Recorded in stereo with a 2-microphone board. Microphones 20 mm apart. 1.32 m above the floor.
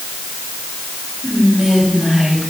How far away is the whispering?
About 6 m.